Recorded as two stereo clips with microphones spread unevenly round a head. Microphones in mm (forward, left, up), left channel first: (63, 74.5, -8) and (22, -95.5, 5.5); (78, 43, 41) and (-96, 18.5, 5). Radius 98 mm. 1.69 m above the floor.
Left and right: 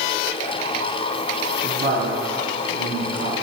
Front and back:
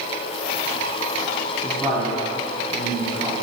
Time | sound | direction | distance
1.6 | a woman speaking | 80° right | 3.5 m